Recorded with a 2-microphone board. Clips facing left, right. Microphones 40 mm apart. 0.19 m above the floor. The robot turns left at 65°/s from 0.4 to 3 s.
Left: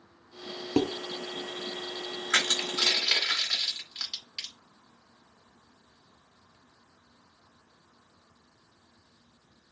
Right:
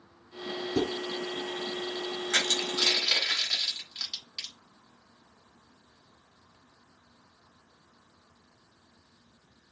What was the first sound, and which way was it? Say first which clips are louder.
Dishes clattering: left 3 dB; 55° left (ahead or behind).